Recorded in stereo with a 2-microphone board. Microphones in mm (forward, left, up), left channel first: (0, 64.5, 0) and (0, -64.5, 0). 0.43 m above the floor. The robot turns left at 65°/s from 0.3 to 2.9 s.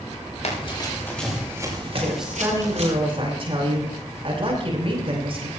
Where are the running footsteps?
65° left (ahead or behind), 7 m; by 2.9 s 55° right (ahead or behind), 4.5 m.